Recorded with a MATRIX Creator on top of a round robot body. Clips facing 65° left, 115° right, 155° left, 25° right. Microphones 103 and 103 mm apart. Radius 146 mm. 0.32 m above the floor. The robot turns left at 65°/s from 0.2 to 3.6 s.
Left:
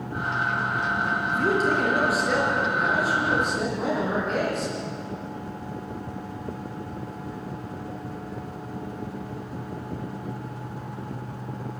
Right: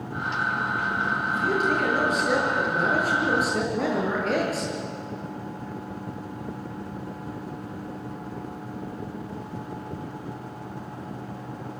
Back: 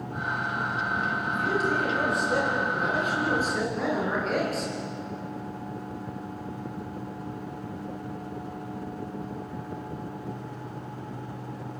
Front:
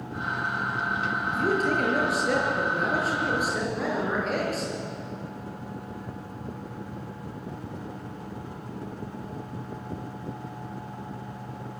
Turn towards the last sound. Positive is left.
turn(degrees=-110)